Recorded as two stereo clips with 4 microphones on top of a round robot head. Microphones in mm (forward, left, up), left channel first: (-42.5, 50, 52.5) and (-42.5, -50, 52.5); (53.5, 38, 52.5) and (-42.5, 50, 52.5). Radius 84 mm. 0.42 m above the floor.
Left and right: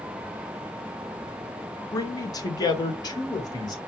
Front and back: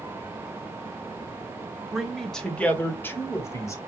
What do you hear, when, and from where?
1.9 s a man speaking: 90° left, 1.3 m; by 3.8 s 45° left, 2 m